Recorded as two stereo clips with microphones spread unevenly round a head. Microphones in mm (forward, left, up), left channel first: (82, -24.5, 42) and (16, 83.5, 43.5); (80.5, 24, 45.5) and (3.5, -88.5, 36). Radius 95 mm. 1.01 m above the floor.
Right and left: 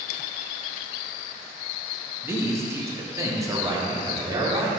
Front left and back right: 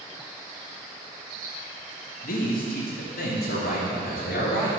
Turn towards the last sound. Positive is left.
turn(degrees=60)